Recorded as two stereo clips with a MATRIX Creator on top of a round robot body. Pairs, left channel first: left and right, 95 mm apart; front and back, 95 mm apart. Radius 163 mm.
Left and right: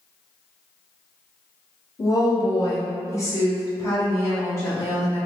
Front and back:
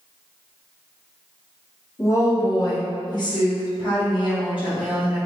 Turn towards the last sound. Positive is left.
turn(degrees=30)